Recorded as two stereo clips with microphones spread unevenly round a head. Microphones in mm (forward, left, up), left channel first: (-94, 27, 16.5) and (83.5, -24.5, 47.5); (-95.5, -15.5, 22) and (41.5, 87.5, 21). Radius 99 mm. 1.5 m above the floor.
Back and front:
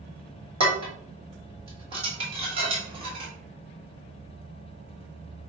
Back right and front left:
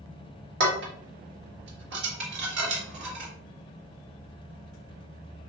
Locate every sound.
0.6 s dishes clattering: 40° left, 1.4 m